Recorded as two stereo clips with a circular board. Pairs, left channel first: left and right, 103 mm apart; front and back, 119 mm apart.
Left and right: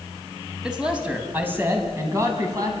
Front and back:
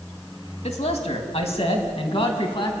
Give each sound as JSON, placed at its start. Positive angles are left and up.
{"t": 0.6, "sound": "a man speaking", "azimuth_deg": -5, "distance_m": 3.0}